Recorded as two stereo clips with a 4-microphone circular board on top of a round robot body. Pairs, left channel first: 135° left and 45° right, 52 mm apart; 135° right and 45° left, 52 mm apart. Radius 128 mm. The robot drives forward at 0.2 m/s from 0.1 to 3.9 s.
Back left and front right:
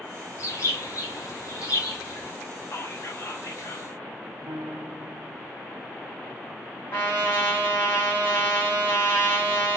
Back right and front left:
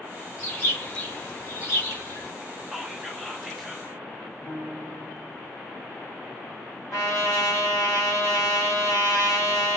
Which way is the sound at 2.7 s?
130° left.